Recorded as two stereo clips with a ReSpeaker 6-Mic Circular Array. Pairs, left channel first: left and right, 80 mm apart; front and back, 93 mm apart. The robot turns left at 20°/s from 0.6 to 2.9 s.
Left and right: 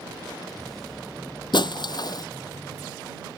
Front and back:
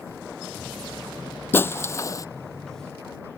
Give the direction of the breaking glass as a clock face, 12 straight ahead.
10 o'clock.